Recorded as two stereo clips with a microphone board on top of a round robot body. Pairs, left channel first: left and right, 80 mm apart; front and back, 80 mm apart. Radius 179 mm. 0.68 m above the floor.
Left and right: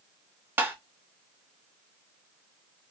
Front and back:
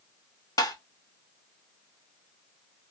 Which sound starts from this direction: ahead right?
Tapping, at 0.6 s.